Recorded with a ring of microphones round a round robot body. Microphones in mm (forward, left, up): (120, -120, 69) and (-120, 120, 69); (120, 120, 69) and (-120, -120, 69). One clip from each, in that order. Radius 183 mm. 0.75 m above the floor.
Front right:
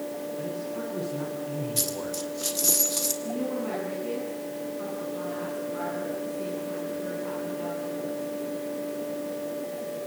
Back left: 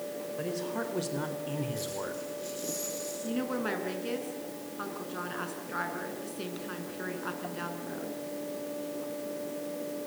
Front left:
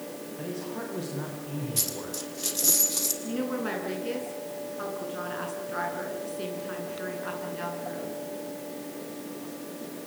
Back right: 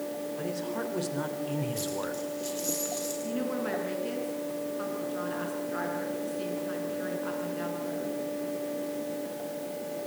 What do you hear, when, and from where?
0.4 s a man speaking: 155° left, 4.5 m; by 2.2 s 165° right, 3.5 m
1.8 s a dropped coin: 15° right, 3 m
3.2 s a woman speaking: 125° left, 8 m